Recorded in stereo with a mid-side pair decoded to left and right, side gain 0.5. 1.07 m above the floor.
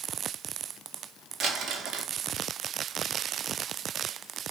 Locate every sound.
1.4 s crumpling: 65° right, 1.8 m